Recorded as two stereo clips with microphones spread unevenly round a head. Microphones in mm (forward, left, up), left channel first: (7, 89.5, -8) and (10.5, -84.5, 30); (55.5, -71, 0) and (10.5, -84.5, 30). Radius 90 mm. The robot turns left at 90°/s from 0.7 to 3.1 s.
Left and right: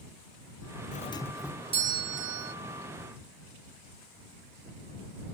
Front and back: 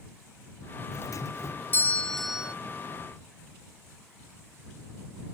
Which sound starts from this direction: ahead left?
A doorbell, at 0.9 s.